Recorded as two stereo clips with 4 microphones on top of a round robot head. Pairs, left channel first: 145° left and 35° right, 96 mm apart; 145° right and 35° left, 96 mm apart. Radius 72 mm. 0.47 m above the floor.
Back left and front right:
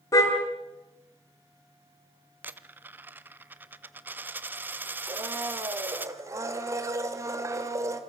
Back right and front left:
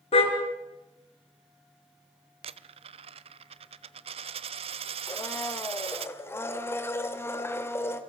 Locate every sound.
0.1 s a car horn: 160° right, 3.5 m
2.4 s a dropped coin: 35° left, 0.8 m
5.1 s a blender: 85° right, 2 m